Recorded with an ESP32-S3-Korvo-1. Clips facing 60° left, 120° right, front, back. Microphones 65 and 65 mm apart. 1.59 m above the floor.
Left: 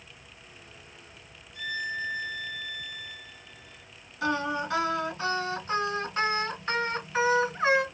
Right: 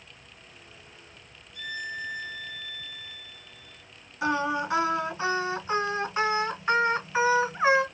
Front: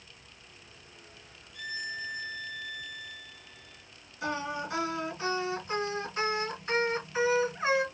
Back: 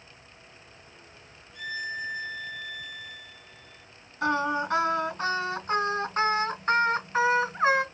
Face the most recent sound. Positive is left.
turn(degrees=170)